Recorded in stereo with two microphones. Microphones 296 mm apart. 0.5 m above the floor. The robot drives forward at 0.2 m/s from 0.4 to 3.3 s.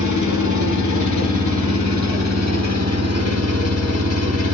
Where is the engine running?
70° left (ahead or behind), 0.7 m; by 4.5 s 55° left (ahead or behind), 0.9 m.